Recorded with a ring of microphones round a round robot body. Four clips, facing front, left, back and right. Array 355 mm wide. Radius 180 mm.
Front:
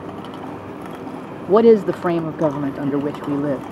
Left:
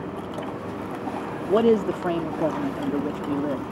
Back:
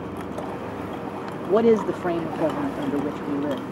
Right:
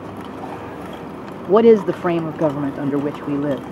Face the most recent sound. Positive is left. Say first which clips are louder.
# right 8 dB, front 6 dB
turn(degrees=-50)